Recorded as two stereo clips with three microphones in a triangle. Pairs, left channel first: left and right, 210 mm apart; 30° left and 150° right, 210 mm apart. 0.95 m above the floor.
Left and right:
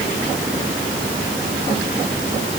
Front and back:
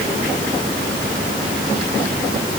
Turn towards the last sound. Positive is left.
No sound to turn to.